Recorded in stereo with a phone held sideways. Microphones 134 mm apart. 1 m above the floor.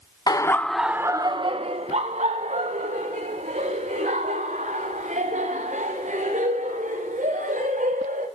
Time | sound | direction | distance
0.3 | laughter | 30° left (ahead or behind) | 0.8 m